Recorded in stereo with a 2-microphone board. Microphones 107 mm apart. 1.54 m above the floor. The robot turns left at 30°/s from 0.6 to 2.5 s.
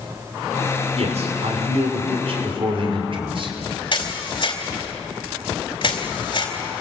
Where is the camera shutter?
50° left (ahead or behind), 4 m.